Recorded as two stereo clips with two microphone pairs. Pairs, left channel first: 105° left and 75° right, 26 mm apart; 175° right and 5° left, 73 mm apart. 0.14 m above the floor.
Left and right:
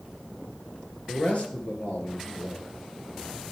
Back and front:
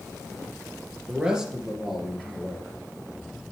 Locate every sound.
1.1 s a man speaking: 80° left, 3 m; by 3.5 s 105° left, 3.5 m